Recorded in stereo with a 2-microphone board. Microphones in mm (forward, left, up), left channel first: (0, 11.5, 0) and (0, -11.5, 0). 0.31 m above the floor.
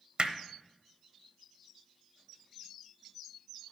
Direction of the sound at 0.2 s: 45° right (ahead or behind).